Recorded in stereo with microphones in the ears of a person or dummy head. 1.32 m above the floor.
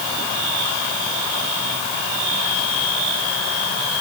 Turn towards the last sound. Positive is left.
No sound to turn to.